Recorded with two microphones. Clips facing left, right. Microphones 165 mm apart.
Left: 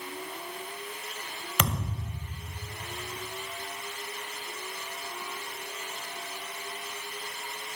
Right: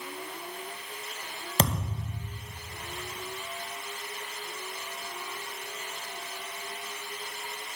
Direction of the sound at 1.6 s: 35° right (ahead or behind).